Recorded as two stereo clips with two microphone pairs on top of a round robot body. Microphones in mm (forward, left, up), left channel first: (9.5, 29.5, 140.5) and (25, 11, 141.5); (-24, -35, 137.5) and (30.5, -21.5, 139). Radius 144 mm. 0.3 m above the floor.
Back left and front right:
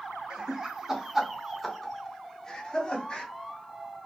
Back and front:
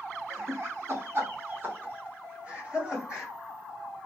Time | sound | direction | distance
0.3 | laughter | 5° left | 1.4 m